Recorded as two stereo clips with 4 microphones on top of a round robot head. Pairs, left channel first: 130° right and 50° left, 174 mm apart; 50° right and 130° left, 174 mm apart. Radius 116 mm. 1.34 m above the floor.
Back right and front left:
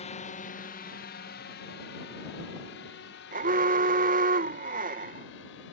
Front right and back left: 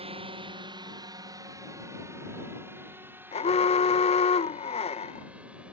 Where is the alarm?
10° left.